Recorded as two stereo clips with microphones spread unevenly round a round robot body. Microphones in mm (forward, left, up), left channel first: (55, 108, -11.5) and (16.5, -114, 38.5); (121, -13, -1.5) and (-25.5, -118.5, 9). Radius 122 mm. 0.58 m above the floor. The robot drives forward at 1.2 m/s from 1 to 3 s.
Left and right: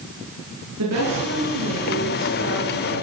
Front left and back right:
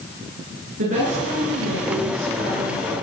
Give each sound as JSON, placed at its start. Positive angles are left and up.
{"t": 0.8, "sound": "a woman speaking", "azimuth_deg": -130, "distance_m": 8.5}